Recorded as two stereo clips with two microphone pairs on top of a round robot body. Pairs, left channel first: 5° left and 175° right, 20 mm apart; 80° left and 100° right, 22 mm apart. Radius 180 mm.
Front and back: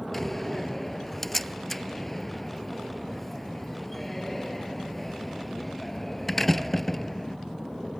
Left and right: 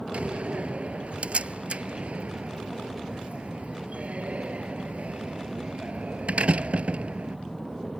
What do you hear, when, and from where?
0.1 s a door slam: 75° right